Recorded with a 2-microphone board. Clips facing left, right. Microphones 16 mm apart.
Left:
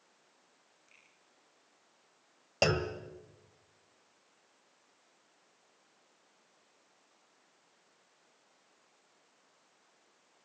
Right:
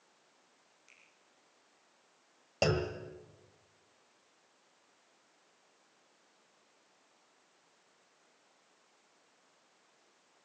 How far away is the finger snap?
About 9 m.